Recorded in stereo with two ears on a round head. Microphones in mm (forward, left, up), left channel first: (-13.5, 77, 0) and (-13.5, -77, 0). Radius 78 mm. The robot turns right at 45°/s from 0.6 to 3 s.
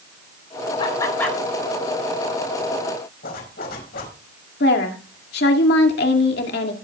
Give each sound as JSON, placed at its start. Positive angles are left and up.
{"t": 0.8, "sound": "laughter", "side_deg": 30, "distance_m": 3.5}
{"t": 3.2, "sound": "a zipper", "side_deg": 65, "distance_m": 4.5}
{"t": 4.6, "sound": "a woman speaking", "side_deg": 70, "distance_m": 2.0}